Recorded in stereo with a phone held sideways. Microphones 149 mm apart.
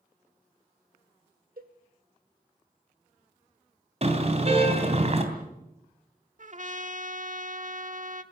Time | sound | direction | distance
1.6 | a cowbell | 70° right (ahead or behind) | 1.6 m
4.0 | a car horn | 45° right (ahead or behind) | 3 m
6.4 | a trumpet | 60° right (ahead or behind) | 1.2 m